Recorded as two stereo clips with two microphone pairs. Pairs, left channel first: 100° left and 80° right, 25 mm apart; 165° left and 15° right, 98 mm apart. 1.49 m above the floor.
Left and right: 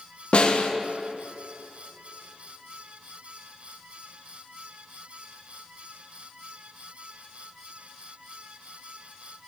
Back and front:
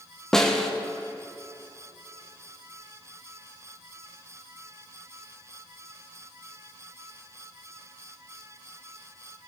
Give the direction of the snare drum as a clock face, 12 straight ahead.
9 o'clock.